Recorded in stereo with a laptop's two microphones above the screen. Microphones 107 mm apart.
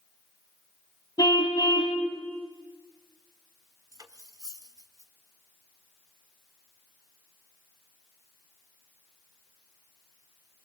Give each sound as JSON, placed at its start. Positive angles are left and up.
{"t": 1.2, "sound": "a car horn", "side_deg": 40, "distance_m": 3.5}
{"t": 3.9, "sound": "cutlery clinking", "side_deg": -35, "distance_m": 1.3}